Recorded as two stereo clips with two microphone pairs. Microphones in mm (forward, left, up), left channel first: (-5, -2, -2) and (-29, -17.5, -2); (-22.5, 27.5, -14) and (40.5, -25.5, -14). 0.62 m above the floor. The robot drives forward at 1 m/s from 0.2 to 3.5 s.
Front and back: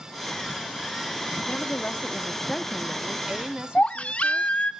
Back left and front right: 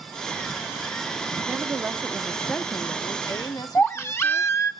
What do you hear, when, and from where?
1.5 s a woman speaking: 15° left, 1.3 m; by 4.5 s 165° left, 1.3 m
3.8 s a baby crying: 80° left, 1.2 m